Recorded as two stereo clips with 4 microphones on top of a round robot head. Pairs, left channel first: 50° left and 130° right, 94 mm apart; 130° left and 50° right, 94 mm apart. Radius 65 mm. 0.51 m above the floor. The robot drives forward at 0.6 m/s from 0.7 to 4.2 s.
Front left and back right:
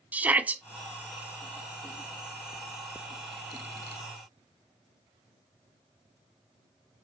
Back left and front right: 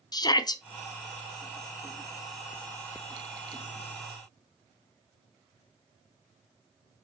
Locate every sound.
0.1 s a shout: 160° left, 1.0 m